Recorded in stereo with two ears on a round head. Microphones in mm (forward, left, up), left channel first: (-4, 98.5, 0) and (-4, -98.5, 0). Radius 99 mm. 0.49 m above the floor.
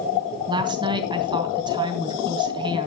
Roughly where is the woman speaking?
Right.